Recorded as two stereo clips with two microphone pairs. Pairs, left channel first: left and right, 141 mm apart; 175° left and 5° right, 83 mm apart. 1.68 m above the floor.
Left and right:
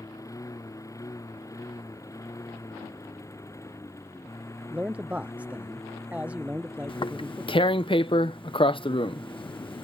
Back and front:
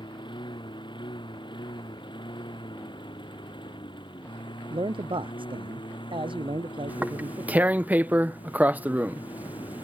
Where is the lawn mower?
155° left; by 9.8 s 160° left.